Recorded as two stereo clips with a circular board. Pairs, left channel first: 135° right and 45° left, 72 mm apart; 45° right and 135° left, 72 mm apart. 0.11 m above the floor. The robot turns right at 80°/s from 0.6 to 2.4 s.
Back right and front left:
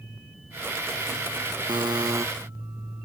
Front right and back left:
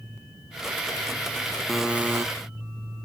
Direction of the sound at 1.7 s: 40° left.